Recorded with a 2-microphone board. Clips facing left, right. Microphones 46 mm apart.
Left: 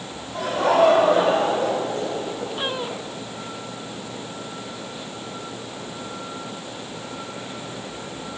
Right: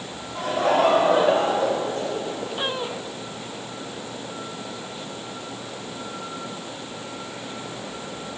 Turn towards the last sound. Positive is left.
turn(degrees=40)  # may be behind; listen again after turning